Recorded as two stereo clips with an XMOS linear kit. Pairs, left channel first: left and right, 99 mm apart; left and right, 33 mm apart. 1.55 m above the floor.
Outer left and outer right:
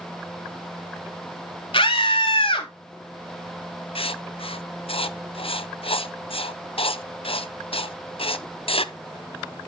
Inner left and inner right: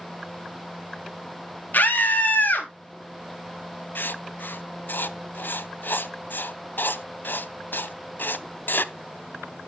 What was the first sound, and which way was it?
A scream, 60° left (ahead or behind).